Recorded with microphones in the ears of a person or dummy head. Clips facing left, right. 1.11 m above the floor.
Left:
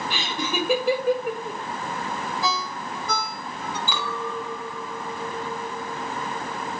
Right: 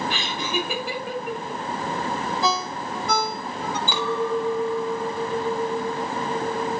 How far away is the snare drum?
I don't hear a snare drum.